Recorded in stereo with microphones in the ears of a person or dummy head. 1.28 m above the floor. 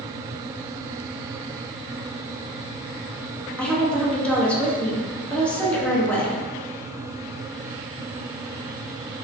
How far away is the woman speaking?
About 0.7 m.